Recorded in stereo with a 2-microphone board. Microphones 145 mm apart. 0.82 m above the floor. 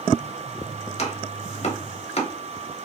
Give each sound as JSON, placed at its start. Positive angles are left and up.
{"t": 1.0, "sound": "chopping", "side_deg": 50, "distance_m": 0.7}